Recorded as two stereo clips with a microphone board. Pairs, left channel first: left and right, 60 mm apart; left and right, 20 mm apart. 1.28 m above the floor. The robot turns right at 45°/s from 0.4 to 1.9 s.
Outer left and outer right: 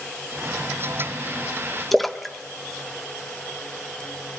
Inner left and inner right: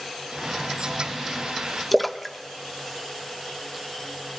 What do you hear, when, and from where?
1.9 s a splash: centre (ahead or behind), 0.6 m